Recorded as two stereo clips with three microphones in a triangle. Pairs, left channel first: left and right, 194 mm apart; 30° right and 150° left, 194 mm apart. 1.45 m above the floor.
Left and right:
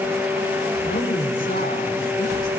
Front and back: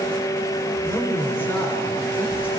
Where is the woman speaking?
50° left, 5.5 m.